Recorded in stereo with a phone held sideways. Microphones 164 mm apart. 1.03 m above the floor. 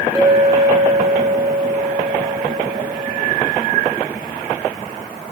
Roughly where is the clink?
Centre.